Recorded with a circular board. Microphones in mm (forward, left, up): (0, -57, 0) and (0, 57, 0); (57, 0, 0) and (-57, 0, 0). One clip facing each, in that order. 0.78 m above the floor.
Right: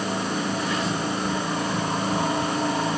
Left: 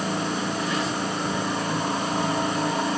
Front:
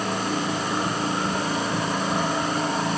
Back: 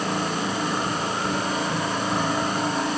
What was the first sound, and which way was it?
Only background noise.